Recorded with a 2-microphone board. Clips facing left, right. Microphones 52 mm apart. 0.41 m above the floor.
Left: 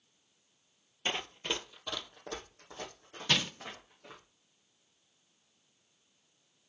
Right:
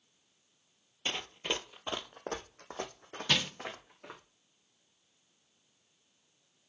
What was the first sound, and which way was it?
Running footsteps, 20° left (ahead or behind).